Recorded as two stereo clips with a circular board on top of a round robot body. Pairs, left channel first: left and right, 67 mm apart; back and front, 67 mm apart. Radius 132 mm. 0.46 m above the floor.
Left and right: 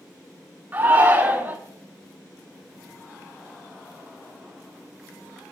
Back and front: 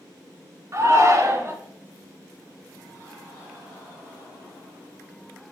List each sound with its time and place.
0.7 s a shout: 40° right, 1.7 m